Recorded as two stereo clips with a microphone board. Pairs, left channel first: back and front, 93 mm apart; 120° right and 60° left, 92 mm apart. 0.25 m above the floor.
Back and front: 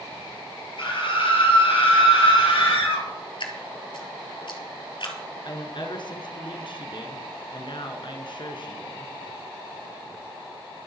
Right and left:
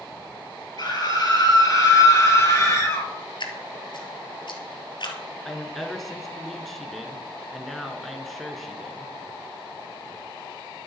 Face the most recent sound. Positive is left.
turn(degrees=155)